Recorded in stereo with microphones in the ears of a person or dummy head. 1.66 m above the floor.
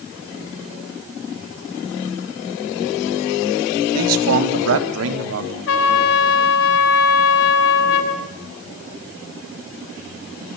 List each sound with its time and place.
3.9 s a man speaking: 75° right (ahead or behind), 2.5 m; by 5.6 s 80° right, 3.5 m
5.7 s a trumpet: 75° left (ahead or behind), 3.5 m